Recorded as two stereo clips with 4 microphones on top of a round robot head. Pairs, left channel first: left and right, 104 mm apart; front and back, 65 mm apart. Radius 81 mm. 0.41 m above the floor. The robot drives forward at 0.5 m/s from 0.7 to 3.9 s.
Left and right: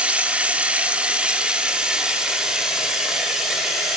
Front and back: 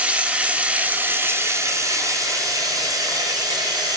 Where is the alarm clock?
I don't hear an alarm clock.